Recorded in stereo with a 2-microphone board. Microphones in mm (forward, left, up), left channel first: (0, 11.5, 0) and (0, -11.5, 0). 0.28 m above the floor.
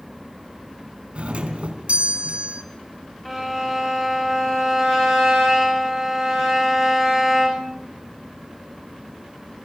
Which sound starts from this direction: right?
A doorbell, at 1.1 s.